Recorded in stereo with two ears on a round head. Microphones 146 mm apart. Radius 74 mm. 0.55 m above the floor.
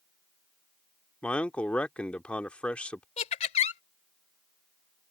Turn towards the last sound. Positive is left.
turn(degrees=40)  # may be behind; listen again after turning